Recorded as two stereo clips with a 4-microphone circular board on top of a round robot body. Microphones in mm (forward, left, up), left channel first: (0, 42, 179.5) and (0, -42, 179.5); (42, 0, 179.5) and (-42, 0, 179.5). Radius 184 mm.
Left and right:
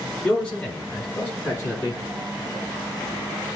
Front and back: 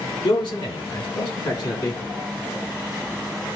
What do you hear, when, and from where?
0.2 s a man speaking: 15° left, 4 m; by 2.0 s 35° left, 5.5 m